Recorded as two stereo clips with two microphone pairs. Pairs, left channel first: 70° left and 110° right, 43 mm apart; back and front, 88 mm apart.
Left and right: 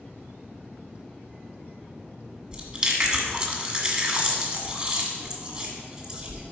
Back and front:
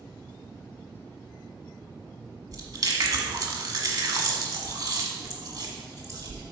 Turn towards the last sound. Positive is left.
turn(degrees=-50)